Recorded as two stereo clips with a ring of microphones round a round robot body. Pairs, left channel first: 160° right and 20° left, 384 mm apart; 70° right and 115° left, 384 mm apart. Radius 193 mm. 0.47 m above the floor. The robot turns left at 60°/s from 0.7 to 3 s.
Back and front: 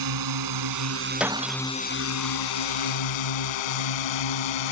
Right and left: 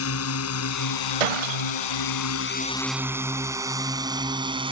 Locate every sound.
0.0 s a drone: 15° right; by 4.7 s 170° right
1.2 s breaking glass: 110° left; by 2.0 s 60° left